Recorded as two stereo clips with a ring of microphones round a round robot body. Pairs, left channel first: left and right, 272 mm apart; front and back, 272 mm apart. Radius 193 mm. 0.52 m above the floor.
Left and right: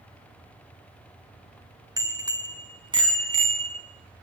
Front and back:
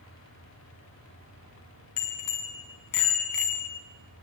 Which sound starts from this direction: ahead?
A bicycle bell, at 2.0 s.